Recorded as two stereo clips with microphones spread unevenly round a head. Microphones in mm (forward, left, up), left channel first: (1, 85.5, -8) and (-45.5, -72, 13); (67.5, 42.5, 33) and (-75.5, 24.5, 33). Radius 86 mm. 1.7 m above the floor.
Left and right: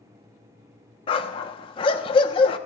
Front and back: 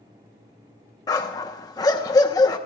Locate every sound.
1.1 s a dog barking: 40° left, 1.2 m